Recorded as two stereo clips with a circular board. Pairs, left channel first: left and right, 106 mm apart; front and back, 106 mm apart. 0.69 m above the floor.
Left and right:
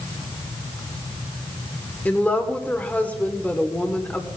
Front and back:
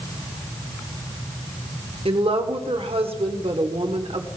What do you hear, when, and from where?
2.0 s a woman speaking: 165° left, 1.7 m